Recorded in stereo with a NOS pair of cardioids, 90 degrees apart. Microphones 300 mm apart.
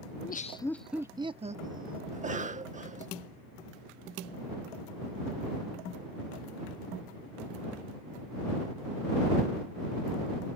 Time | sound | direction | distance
0.1 | laughter | 40° left | ?
2.1 | a cough | 25° right | ?